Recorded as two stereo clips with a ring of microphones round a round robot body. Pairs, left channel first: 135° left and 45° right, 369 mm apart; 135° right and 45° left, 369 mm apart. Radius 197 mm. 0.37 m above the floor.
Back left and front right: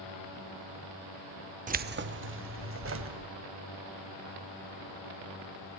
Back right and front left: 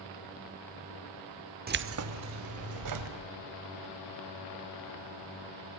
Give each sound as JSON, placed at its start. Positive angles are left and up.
{"t": 1.7, "sound": "keys jangling", "azimuth_deg": 5, "distance_m": 0.6}